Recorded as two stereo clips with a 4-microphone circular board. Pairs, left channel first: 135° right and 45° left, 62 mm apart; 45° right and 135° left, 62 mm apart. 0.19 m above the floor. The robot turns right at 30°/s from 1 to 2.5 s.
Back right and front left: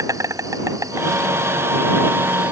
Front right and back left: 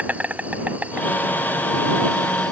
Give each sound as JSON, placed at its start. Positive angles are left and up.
{"t": 0.0, "sound": "an insect", "azimuth_deg": 70}